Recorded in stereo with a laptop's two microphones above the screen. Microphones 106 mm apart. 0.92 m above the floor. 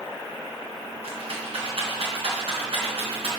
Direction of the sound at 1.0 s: 70° right (ahead or behind).